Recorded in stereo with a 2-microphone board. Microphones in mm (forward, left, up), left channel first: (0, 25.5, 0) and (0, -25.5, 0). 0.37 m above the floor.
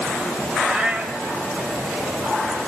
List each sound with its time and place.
0.6 s a cat meowing: 30° right (ahead or behind), 1.0 m